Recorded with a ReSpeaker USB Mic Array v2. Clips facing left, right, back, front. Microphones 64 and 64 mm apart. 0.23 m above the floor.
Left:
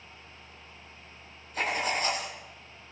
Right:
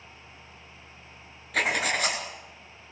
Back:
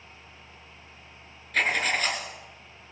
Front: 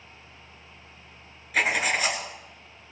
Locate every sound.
1.5 s writing: 80° right, 2.5 m